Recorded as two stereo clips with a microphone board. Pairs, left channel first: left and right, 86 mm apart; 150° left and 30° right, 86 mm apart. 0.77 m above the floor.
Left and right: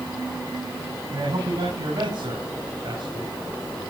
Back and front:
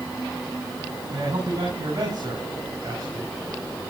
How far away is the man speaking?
About 7 m.